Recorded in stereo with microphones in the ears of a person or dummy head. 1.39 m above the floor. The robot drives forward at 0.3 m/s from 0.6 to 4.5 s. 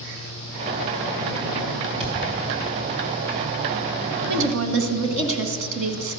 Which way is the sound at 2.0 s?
30° right (ahead or behind).